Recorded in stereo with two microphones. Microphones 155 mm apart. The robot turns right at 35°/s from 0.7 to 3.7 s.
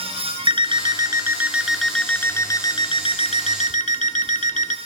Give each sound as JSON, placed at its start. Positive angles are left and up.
{"t": 0.5, "sound": "an alarm clock", "azimuth_deg": -35, "distance_m": 0.8}